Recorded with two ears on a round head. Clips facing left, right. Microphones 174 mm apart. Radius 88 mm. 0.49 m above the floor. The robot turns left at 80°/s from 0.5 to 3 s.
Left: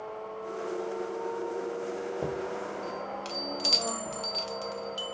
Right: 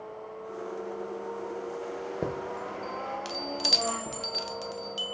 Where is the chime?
20° right (ahead or behind), 0.7 m; by 5.1 s 15° right (ahead or behind), 0.7 m.